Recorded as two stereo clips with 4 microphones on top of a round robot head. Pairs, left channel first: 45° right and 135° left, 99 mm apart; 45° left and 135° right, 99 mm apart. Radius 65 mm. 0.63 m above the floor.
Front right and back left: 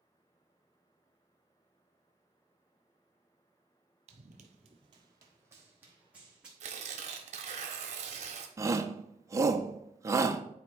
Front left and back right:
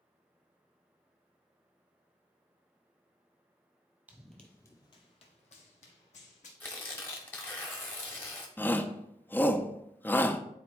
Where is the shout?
105° left, 0.6 m.